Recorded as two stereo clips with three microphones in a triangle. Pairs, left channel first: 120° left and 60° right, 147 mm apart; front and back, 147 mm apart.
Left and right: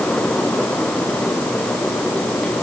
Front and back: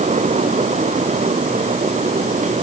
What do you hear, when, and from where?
Only background noise.